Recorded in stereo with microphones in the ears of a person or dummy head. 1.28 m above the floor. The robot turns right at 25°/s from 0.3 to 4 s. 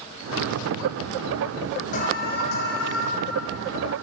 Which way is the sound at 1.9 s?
45° left (ahead or behind).